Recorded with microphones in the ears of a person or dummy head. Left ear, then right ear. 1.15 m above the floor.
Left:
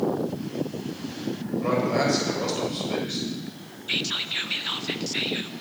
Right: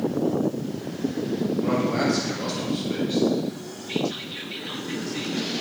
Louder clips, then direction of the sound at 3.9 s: Left 3 dB; 50° left (ahead or behind).